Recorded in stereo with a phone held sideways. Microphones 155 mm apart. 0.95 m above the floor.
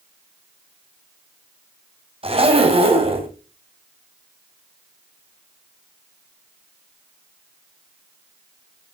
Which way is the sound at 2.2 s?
35° right (ahead or behind).